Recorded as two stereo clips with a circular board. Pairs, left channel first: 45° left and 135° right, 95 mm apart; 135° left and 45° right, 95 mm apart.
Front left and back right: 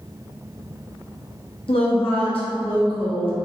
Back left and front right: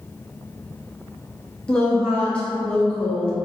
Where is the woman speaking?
55° left, 1.1 m.